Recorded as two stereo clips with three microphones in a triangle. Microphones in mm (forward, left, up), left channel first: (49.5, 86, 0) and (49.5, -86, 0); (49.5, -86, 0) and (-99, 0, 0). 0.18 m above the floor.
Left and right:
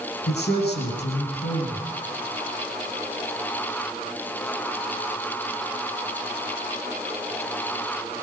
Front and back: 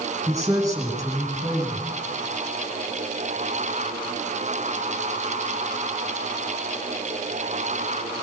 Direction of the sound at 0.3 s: 80° left.